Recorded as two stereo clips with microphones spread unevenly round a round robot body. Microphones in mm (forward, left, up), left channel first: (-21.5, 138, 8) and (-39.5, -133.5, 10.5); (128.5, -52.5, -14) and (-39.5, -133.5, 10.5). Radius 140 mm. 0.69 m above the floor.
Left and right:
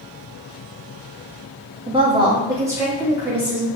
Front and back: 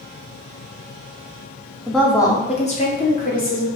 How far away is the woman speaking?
About 0.6 m.